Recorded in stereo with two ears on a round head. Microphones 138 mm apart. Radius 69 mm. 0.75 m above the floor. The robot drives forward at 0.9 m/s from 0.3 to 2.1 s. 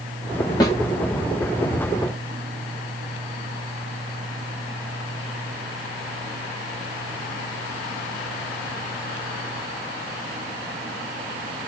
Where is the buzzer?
I don't hear a buzzer.